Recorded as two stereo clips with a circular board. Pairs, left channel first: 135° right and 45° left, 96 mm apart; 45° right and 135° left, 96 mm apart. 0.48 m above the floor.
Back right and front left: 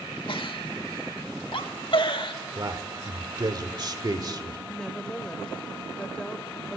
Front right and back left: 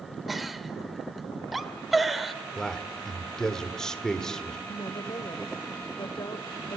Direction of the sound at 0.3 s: 135° right.